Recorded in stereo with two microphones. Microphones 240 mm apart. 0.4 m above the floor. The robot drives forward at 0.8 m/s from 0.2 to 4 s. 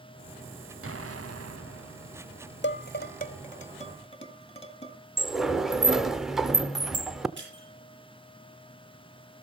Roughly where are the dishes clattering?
Left.